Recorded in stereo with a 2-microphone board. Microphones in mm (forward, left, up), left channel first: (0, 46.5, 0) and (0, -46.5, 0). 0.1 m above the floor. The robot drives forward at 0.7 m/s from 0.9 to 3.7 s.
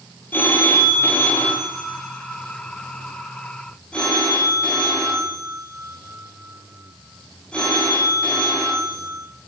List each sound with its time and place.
0.3 s a phone ringing: 20° left (ahead or behind), 1.8 m; by 9.2 s 10° left (ahead or behind), 3.5 m